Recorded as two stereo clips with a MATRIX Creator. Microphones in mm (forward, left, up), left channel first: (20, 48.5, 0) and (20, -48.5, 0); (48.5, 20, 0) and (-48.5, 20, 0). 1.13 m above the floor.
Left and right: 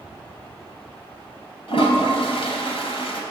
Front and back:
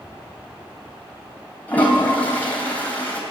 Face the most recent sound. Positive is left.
turn(degrees=75)